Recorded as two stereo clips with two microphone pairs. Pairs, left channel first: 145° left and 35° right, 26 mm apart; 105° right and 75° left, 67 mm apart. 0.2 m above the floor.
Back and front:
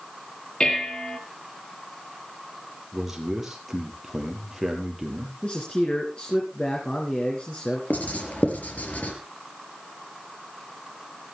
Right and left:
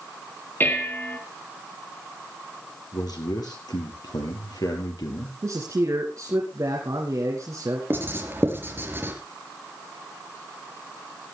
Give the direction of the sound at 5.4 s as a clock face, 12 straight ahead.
9 o'clock.